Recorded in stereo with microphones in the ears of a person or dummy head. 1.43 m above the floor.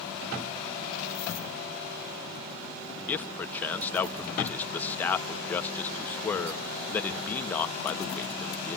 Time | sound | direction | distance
3.1 | a man speaking | 10° left (ahead or behind) | 1.2 m